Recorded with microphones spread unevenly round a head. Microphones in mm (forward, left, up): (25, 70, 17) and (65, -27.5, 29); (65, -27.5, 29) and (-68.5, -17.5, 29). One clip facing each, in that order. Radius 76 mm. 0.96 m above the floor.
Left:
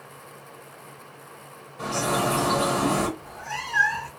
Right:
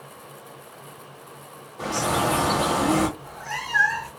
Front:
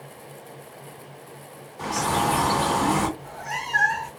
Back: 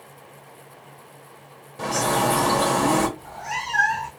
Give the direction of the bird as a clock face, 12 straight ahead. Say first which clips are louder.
Right 1 dB, back 2 dB; 5 o'clock.